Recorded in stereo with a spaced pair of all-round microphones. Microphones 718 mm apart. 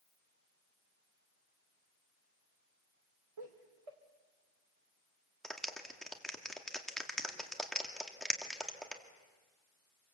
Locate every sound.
3.4 s laughter: 45° right (ahead or behind), 1.3 m
5.4 s a clap: centre (ahead or behind), 1.9 m